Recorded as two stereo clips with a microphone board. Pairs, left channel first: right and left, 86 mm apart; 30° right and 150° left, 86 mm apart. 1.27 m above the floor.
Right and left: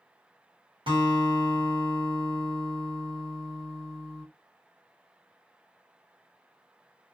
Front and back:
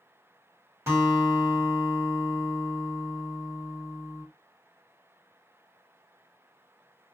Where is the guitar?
90° left, 1.4 m.